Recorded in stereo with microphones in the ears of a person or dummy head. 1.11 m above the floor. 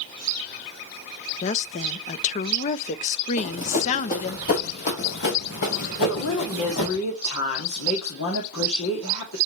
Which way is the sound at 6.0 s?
85° left.